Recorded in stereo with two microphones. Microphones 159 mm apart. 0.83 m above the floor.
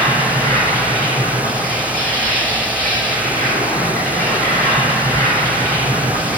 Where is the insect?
70° right (ahead or behind), 3 m.